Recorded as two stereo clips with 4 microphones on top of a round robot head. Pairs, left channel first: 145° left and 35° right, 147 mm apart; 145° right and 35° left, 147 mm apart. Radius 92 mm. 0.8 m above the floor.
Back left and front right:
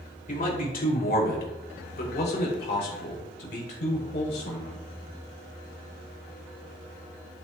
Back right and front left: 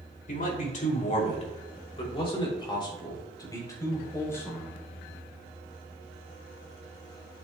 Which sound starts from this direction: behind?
A man speaking, at 0.3 s.